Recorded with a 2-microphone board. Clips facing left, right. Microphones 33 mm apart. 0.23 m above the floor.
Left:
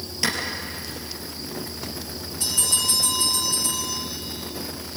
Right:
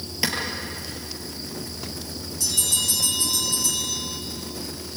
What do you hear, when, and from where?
0.2 s a clap: 15° right (ahead or behind), 4.5 m
2.4 s a bell: 30° left (ahead or behind), 9.5 m